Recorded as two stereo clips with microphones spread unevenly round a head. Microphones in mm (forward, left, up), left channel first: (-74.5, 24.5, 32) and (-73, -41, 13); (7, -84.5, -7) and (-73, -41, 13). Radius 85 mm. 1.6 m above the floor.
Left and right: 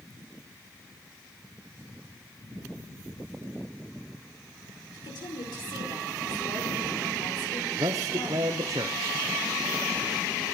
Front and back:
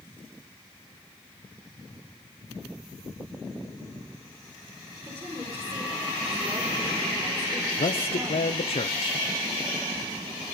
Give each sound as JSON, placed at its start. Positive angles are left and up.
{"t": 4.9, "sound": "a woman speaking", "azimuth_deg": 85, "distance_m": 4.5}
{"t": 7.8, "sound": "a man speaking", "azimuth_deg": -40, "distance_m": 0.8}